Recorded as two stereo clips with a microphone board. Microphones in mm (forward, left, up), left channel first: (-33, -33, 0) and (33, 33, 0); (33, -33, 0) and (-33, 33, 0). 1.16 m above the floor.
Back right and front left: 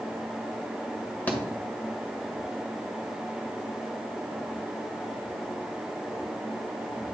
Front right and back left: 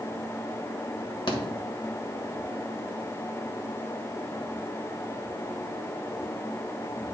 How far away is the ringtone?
No ringtone in this recording.